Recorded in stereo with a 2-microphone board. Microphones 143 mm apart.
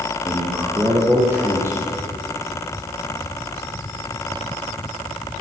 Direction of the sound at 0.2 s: 15° right (ahead or behind).